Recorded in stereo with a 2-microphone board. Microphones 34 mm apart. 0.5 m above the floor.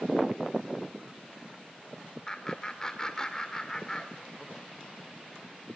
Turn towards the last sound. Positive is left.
turn(degrees=20)  # may be behind; listen again after turning